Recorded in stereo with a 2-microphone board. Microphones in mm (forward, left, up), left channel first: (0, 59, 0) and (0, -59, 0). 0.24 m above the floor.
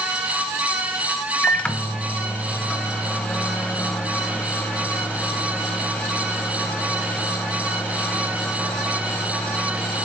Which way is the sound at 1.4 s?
10° left (ahead or behind).